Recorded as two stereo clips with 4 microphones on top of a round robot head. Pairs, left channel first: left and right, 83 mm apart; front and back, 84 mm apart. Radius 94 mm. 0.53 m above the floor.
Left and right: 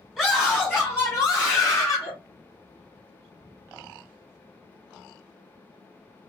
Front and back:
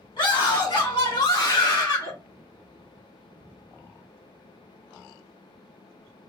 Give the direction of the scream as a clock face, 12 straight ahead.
12 o'clock.